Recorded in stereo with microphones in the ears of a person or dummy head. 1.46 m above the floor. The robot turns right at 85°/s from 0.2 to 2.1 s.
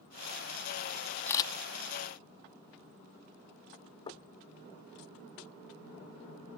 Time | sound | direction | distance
1.3 | a camera shutter | 15° left (ahead or behind) | ?
4.1 | knocking | 25° left (ahead or behind) | ?